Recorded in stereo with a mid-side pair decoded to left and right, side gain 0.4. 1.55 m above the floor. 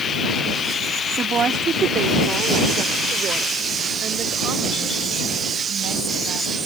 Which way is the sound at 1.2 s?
55° right.